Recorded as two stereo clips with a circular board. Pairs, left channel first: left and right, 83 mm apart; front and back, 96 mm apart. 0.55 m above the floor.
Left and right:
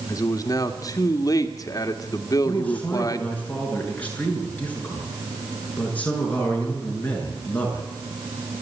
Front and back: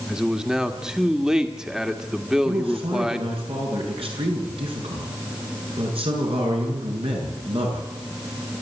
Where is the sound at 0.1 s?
100° left, 1.7 m.